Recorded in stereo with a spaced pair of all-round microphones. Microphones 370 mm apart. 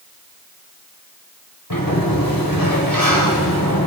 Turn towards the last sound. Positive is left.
turn(degrees=60)  # may be behind; listen again after turning